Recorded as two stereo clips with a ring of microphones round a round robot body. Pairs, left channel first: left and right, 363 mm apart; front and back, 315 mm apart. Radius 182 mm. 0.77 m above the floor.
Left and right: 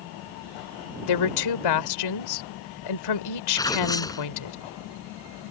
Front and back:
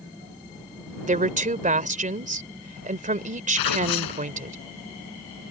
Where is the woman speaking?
115° left.